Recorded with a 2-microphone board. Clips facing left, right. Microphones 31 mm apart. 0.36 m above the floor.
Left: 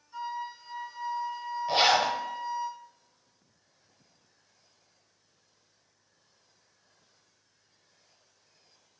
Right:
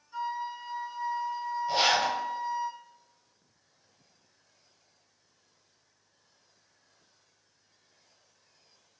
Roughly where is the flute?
Centre.